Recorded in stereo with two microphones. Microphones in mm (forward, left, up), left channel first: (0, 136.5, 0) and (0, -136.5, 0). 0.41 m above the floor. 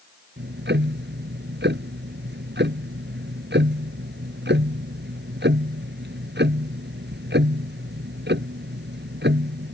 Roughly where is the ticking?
Right.